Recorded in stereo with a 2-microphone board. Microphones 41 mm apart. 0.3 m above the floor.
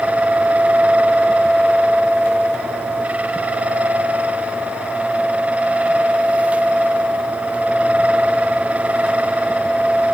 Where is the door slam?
No door slam in this recording.